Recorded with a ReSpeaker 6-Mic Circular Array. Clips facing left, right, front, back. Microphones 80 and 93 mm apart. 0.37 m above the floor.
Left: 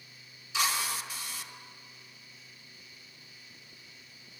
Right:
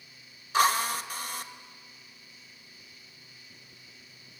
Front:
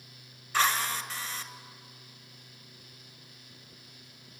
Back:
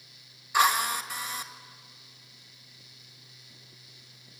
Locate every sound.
0.5 s a drill: 105° right, 1.7 m